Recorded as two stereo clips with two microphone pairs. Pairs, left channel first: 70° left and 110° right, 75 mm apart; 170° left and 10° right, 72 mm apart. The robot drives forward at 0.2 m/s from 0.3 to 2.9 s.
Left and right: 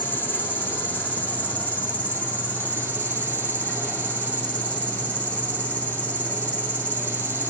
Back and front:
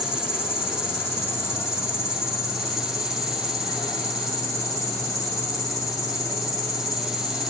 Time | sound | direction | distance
0.0 | an insect | 130° left | 2.5 m